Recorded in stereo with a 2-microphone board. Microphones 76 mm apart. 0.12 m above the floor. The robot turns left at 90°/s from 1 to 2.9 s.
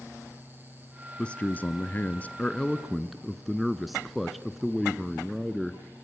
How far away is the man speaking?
About 1.1 m.